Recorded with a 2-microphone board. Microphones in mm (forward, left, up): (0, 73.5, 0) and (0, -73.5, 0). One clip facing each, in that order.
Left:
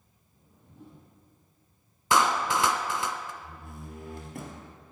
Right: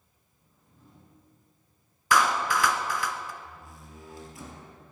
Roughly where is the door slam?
Left.